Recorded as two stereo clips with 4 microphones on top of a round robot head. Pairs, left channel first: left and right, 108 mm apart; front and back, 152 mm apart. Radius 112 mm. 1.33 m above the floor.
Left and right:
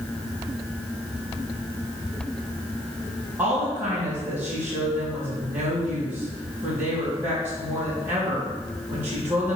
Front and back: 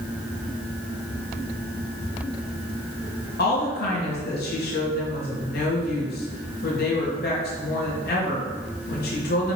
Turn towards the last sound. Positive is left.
turn(degrees=-15)